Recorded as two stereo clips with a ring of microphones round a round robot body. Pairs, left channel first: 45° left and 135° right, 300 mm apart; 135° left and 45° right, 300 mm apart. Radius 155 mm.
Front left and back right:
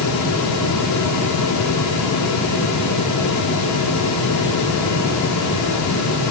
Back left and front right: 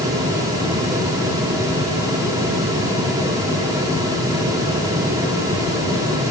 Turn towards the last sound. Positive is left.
No sound to turn to.